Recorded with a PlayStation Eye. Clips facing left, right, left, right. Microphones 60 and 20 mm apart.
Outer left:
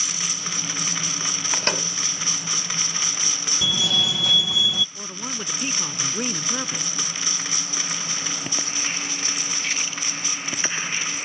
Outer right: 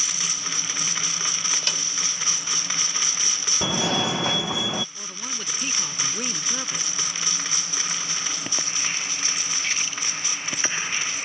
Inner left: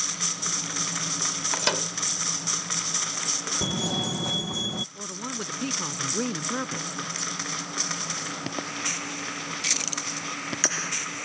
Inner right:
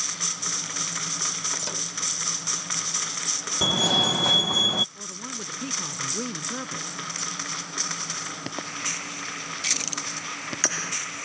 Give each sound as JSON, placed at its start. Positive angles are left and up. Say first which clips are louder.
{"t": 1.5, "sound": "a microwave", "louder": "outer left 6 dB, inner left 4 dB", "side_deg": 45}
{"t": 3.6, "sound": "a fire alarm", "louder": "outer right 2 dB, inner right 11 dB", "side_deg": -40}
{"t": 5.0, "sound": "a man speaking", "louder": "outer left 3 dB, inner left 2 dB", "side_deg": 15}